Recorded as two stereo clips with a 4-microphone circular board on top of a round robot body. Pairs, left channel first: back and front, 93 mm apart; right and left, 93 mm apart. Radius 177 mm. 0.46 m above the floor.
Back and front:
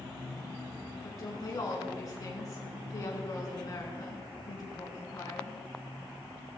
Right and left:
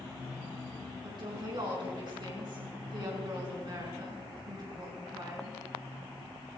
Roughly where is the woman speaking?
Behind left.